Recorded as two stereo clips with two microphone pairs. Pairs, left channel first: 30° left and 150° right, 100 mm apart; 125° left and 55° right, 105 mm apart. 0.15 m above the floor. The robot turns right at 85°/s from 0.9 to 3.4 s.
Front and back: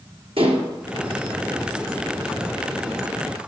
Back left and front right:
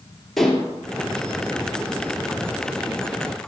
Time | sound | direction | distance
0.4 | dishes clattering | 150° right | 2.5 m